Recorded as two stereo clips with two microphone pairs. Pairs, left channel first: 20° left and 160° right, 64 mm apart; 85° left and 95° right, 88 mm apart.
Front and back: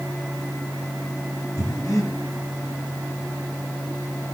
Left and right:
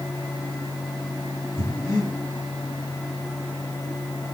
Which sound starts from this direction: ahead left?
Breathing, at 1.6 s.